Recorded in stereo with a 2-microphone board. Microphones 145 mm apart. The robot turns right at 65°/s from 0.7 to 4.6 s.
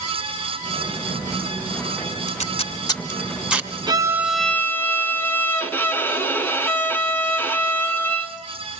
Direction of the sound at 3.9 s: 35° right.